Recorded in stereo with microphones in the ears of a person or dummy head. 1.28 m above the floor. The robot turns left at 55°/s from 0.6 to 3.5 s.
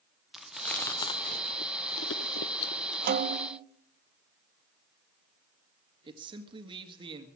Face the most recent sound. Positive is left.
turn(degrees=-25)  # may be behind; listen again after turning